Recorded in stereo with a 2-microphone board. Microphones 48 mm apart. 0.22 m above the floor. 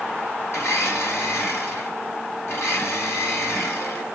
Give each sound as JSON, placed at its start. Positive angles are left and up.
{"t": 0.5, "sound": "a blender", "side_deg": 65, "distance_m": 2.0}